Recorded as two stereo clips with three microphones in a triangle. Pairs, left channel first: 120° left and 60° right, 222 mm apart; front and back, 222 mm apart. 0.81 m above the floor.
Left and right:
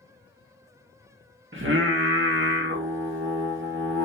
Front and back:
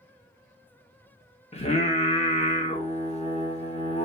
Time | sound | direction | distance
1.5 | singing | 60° right | 0.7 m